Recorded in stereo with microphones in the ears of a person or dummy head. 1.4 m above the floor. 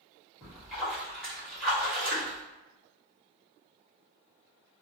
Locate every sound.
0.4 s a splash: 5° right (ahead or behind), 1.9 m